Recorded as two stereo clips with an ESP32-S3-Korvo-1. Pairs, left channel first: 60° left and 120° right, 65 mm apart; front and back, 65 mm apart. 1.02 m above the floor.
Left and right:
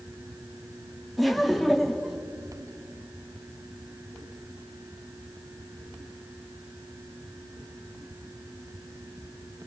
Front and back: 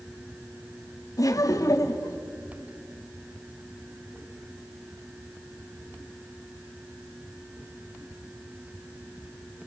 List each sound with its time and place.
1.2 s laughter: 30° right, 2.5 m